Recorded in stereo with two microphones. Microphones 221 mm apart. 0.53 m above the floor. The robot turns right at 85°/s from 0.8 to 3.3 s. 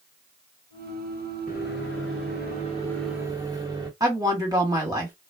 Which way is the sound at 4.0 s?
15° right (ahead or behind).